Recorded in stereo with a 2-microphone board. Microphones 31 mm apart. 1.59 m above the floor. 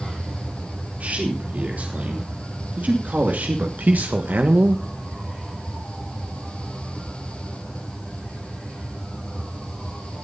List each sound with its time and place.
1.0 s a man speaking: 60° right (ahead or behind), 4 m; by 4.8 s 75° right (ahead or behind), 1.2 m